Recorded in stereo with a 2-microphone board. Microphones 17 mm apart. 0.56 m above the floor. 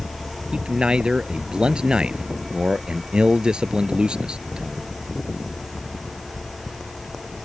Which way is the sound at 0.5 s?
75° right (ahead or behind).